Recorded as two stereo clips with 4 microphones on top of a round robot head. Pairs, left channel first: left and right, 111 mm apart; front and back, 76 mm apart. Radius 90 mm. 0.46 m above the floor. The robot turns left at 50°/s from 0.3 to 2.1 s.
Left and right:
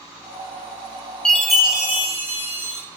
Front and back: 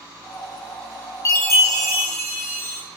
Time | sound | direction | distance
1.2 | a chime | 10° left | 0.9 m